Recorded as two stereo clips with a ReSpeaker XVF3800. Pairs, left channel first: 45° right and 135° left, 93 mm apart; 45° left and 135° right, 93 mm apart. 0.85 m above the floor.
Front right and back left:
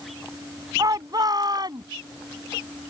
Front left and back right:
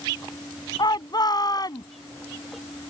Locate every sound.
0.8 s a shout: 85° left; by 1.9 s 95° left